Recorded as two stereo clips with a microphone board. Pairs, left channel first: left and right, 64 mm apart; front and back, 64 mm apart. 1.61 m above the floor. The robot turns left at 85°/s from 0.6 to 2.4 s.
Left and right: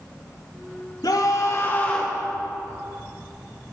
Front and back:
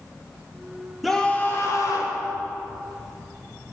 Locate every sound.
1.0 s a scream: 95° left, 4 m; by 2.2 s 5° right, 4 m